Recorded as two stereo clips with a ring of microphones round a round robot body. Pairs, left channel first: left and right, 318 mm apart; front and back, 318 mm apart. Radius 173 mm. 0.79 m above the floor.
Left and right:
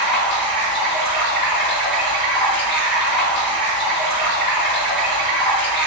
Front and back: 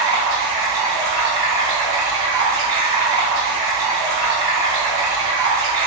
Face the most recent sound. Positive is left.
turn(degrees=175)